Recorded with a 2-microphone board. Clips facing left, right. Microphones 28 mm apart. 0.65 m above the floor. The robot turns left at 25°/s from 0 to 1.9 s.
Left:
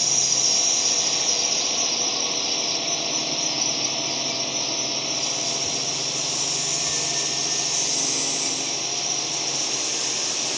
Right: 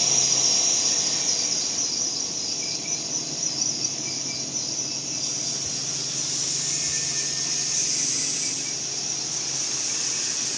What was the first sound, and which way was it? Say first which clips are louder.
A drone: left 1 dB; straight behind.